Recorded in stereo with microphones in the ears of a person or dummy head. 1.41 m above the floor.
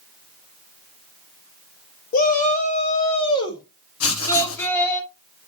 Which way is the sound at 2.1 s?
50° left (ahead or behind).